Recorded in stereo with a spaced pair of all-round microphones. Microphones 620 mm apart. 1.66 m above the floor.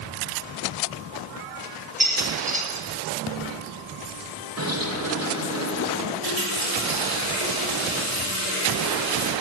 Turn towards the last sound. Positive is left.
turn(degrees=-35)  # may be behind; listen again after turning